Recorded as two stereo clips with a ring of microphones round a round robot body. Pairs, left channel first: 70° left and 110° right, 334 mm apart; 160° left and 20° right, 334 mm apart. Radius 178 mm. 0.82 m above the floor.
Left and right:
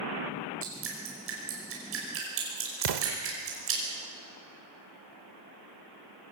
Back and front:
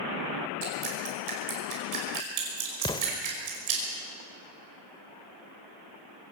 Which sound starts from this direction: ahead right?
Dripping, at 0.6 s.